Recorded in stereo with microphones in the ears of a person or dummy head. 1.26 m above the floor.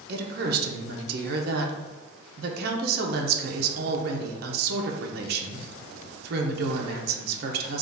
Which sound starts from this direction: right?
A woman speaking, at 0.1 s.